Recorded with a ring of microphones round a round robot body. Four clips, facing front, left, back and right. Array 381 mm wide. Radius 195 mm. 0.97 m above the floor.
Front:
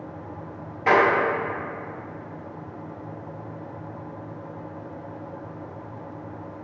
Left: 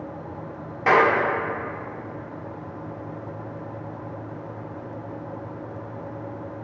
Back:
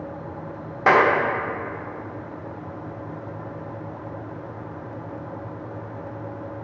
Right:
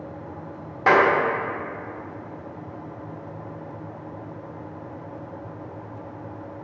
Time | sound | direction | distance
0.9 | a clap | 160° right | 1.3 m